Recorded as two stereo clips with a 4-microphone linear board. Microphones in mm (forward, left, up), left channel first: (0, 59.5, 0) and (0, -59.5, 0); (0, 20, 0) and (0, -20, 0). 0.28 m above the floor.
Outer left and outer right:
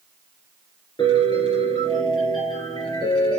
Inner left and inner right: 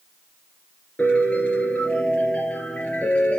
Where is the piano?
40° left (ahead or behind), 3 m.